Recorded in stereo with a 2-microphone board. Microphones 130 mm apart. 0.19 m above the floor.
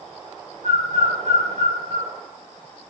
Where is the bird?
60° right (ahead or behind), 3 m.